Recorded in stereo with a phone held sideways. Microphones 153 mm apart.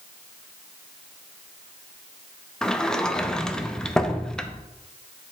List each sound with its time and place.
2.6 s a sliding door: 5° left (ahead or behind), 0.5 m